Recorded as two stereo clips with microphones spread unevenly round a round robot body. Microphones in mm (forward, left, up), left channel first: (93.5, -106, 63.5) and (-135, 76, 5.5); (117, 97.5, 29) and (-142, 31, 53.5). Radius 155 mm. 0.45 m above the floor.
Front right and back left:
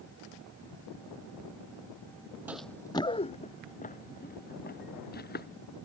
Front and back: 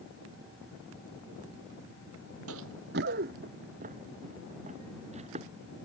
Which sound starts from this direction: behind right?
Running footsteps, at 2.5 s.